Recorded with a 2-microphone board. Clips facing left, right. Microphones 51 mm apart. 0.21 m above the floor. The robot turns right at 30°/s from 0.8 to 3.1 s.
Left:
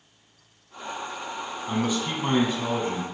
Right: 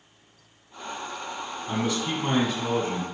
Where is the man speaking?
15° left, 1.8 m; by 3.0 s 55° left, 1.8 m.